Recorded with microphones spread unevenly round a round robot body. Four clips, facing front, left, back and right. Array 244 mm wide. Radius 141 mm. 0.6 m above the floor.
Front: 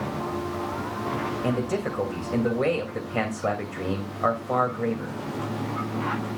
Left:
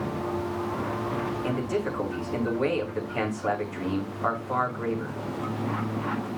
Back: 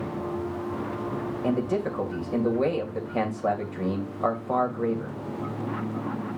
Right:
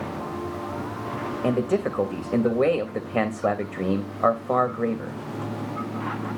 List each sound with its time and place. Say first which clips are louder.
1.4 s a man speaking: right 9 dB, back 2 dB; 85° right, 2.5 m